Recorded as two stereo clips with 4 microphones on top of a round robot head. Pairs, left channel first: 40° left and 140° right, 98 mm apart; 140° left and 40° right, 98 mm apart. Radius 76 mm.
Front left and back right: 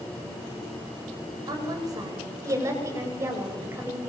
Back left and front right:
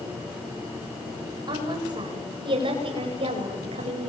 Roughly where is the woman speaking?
Right.